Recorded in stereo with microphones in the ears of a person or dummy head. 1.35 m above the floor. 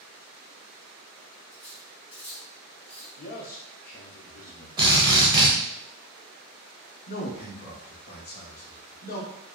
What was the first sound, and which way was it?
Cutlery clinking, 20° left (ahead or behind).